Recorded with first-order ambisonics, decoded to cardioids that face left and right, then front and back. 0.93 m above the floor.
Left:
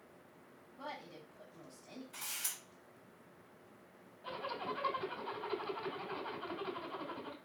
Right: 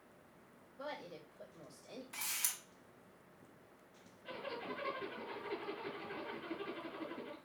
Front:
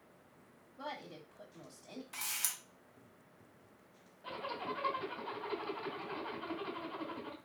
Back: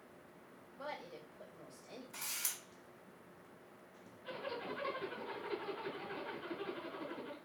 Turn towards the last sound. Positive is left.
turn(degrees=50)